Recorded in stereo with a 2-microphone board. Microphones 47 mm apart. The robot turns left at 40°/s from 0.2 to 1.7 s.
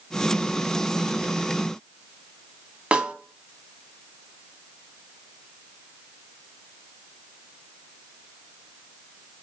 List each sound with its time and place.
2.9 s a snare drum: 25° right (ahead or behind), 0.5 m